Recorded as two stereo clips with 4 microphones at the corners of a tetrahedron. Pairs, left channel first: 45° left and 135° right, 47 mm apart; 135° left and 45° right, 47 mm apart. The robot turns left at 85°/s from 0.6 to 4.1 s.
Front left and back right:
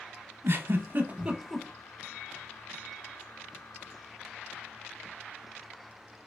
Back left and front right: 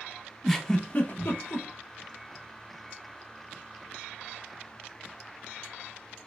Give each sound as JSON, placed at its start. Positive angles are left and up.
{"t": 0.4, "sound": "a giggle", "azimuth_deg": -140, "distance_m": 0.5}